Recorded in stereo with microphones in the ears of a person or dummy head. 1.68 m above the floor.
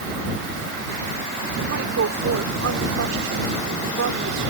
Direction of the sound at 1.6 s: 90° right.